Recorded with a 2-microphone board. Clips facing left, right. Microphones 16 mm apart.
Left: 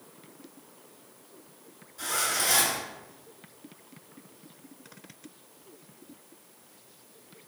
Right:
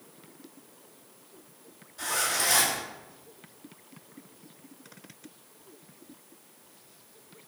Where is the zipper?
15° right (ahead or behind), 1.6 m.